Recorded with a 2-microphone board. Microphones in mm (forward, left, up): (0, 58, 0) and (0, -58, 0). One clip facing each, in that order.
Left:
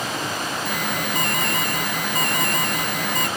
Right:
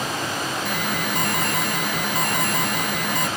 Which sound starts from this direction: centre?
An alarm, at 0.7 s.